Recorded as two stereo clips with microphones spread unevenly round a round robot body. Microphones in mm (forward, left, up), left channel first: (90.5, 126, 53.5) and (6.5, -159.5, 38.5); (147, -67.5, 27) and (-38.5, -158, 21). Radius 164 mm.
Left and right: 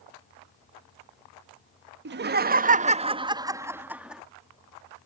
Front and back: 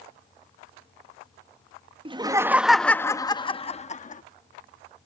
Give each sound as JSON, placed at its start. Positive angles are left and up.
{"t": 2.0, "sound": "laughter", "azimuth_deg": -110}